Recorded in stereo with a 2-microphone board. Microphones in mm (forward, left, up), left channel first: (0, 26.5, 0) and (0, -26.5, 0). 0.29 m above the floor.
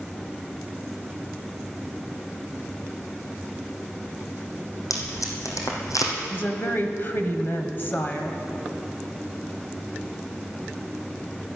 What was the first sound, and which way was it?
Tape being pulled, 85° left.